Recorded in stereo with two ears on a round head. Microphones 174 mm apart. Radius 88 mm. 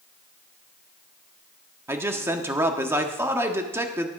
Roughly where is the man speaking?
Centre.